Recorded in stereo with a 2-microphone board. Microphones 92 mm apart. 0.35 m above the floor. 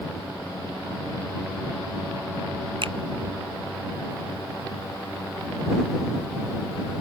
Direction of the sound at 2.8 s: 75° right (ahead or behind).